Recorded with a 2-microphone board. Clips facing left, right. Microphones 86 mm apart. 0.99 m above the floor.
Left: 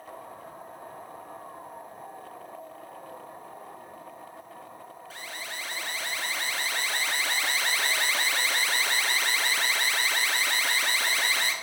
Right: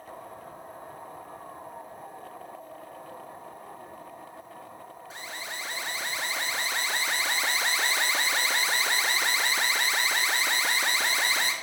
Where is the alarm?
20° right (ahead or behind), 1.3 m.